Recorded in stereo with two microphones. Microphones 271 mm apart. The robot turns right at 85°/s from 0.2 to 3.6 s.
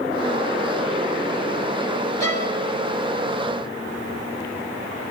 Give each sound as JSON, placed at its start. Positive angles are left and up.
{"t": 2.2, "sound": "a violin", "side_deg": 65, "distance_m": 1.5}